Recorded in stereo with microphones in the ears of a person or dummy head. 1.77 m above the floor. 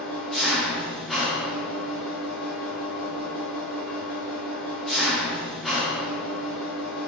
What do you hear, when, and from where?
0.0 s an engine running: centre (ahead or behind), 0.7 m